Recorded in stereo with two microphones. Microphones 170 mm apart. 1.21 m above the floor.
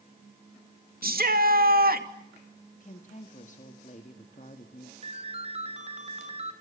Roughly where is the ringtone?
Right.